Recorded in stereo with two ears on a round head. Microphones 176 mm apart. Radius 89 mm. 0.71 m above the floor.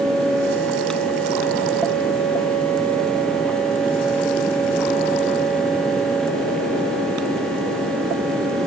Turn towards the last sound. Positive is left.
No sound to turn to.